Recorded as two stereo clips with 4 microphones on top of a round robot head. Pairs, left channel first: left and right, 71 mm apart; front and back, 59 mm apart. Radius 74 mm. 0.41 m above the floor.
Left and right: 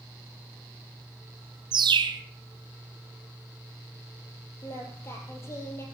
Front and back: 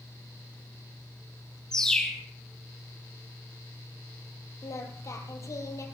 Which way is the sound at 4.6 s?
30° left.